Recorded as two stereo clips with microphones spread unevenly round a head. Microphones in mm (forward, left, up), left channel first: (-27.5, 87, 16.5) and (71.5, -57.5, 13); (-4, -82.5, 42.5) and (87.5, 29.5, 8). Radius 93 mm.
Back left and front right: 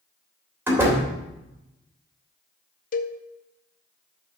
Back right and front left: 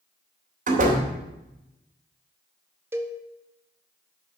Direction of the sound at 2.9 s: 105° left.